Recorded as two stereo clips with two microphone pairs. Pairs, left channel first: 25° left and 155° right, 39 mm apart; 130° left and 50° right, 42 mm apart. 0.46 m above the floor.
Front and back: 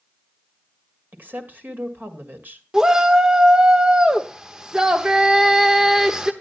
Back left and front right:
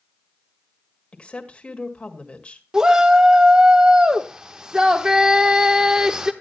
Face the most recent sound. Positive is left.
turn(degrees=-105)